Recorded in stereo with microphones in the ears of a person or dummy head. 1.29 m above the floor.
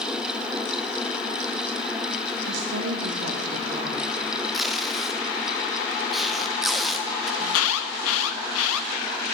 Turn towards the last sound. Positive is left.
turn(degrees=75)  # may be behind; listen again after turning